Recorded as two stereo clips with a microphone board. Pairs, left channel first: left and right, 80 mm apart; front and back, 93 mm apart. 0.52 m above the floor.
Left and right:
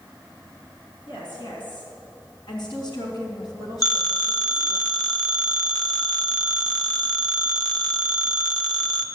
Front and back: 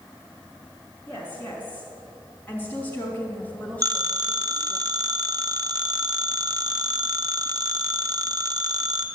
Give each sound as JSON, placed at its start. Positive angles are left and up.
{"t": 1.1, "sound": "a woman speaking", "azimuth_deg": 70, "distance_m": 5.0}
{"t": 3.8, "sound": "a phone ringing", "azimuth_deg": 135, "distance_m": 0.9}